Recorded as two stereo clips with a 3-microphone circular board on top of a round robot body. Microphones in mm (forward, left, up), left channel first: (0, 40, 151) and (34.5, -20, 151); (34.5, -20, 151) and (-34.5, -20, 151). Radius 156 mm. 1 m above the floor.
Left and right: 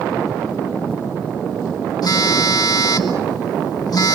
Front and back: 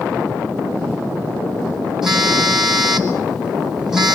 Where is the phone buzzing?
95° left, 2.5 m.